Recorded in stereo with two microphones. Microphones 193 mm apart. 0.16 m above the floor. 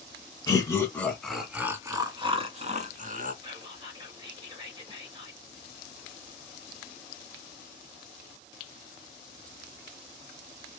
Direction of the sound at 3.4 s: 30° right (ahead or behind).